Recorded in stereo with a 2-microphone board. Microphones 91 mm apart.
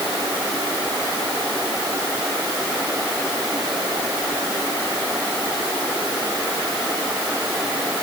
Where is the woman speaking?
I don't hear a woman speaking.